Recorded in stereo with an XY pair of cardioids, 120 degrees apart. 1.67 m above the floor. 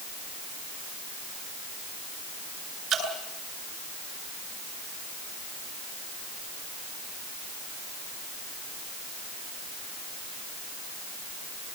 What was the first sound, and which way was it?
Dripping, 50° right.